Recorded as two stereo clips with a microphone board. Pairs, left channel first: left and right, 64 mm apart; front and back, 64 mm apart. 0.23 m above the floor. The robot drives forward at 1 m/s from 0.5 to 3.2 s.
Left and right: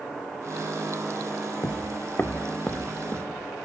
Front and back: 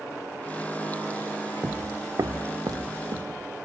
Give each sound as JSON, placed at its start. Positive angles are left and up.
{"t": 1.6, "sound": "footsteps", "azimuth_deg": 110, "distance_m": 0.6}